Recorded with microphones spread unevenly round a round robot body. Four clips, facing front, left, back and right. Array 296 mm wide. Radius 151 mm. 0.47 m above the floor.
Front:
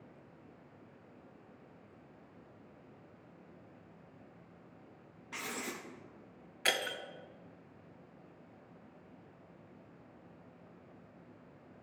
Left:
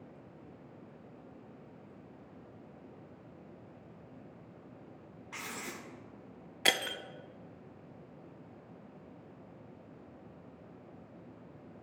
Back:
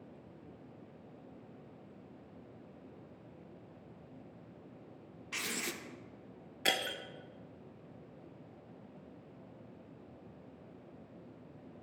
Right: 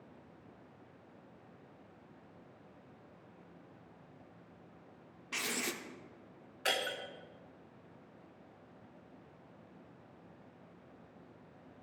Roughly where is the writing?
Behind right.